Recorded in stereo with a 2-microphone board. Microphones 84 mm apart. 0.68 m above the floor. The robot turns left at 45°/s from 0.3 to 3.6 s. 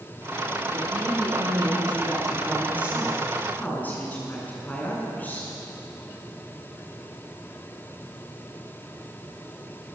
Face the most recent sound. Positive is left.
turn(degrees=160)